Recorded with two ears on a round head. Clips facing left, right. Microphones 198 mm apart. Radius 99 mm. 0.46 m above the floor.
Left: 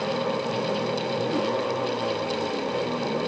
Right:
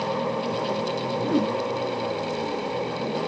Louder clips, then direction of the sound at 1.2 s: Right 4 dB; 80° right.